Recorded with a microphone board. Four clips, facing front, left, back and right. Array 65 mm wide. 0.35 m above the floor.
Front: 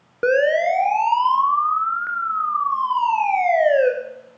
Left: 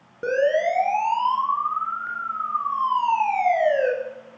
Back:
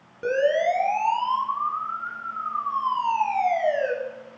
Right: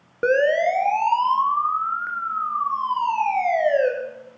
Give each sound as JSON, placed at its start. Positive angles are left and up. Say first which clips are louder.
{"t": 0.2, "sound": "a siren", "louder": "right 2 dB, front 4 dB", "azimuth_deg": -35, "distance_m": 3.5}